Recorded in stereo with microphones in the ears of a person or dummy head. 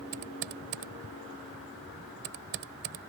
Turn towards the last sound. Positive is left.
turn(degrees=-55)  # may be behind; listen again after turning